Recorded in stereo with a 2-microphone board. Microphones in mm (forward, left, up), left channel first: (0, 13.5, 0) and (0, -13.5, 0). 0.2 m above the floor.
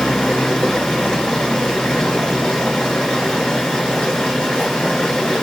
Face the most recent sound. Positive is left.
turn(degrees=35)  # may be behind; listen again after turning